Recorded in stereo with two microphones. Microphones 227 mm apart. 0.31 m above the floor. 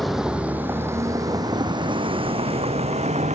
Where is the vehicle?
Centre (ahead or behind); by 3.4 s 30° right (ahead or behind).